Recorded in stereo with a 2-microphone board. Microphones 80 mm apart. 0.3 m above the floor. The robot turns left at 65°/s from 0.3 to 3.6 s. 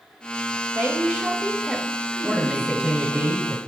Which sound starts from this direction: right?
A woman speaking, at 0.8 s.